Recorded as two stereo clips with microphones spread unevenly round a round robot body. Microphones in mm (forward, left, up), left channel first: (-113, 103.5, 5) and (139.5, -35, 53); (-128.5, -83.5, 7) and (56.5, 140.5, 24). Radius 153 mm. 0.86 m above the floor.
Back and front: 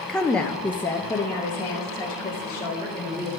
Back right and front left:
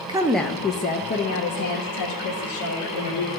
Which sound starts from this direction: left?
A woman speaking, at 0.1 s.